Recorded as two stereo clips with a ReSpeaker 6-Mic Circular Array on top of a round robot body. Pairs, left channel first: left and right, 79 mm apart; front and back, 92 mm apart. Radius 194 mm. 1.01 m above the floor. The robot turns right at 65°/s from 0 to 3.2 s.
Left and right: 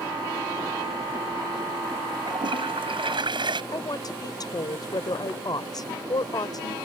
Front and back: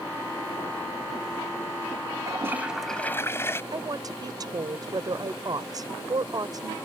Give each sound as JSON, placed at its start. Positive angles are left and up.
{"t": 2.3, "sound": "a toilet flushing", "azimuth_deg": -125}
{"t": 3.7, "sound": "a woman speaking", "azimuth_deg": 130}